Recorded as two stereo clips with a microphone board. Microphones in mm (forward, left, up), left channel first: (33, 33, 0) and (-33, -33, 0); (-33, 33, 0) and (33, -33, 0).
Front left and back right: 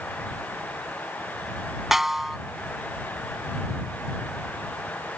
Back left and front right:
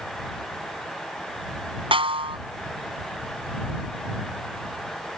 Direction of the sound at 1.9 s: 50° right.